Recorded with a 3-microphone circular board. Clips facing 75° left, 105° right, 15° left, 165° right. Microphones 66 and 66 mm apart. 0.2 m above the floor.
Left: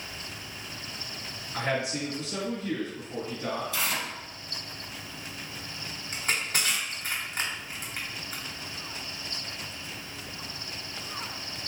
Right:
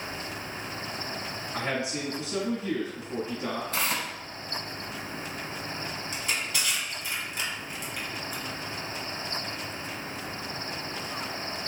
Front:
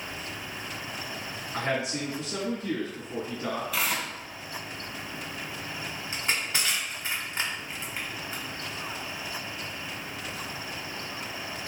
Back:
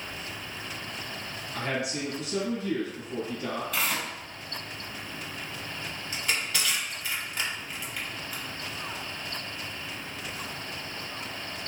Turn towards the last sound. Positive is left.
turn(degrees=60)